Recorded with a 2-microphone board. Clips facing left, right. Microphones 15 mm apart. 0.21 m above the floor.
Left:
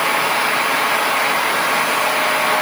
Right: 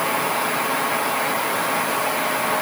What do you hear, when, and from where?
Only background noise.